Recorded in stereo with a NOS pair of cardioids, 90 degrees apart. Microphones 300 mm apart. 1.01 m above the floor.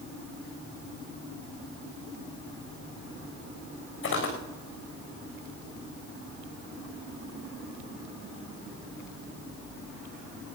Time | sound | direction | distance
4.0 | footsteps | 45° left | 6 m